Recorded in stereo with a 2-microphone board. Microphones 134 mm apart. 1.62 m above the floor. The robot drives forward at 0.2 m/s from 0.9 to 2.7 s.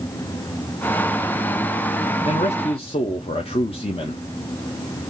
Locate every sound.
2.2 s a man speaking: 55° left (ahead or behind), 0.5 m; by 4.2 s 45° left (ahead or behind), 0.6 m